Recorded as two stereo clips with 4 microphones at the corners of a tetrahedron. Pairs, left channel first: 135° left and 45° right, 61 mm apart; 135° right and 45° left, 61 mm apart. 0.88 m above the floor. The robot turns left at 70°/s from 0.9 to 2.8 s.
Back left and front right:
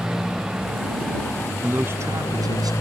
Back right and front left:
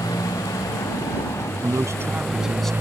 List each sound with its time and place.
0.0 s a motorcycle: 125° right; by 2.8 s 100° left
1.6 s a man speaking: 25° left; by 2.7 s 55° right